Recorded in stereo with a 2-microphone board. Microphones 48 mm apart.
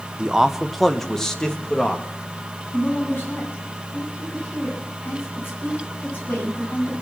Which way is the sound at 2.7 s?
50° left (ahead or behind).